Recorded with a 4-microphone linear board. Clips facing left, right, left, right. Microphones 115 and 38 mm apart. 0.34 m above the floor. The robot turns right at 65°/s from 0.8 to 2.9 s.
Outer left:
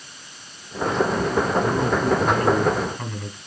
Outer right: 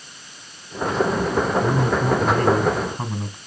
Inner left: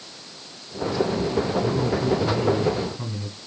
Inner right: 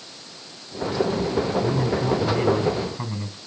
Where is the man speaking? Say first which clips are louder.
Outer right 1 dB, even; 115° right, 3 m; by 3.4 s 30° right, 3 m.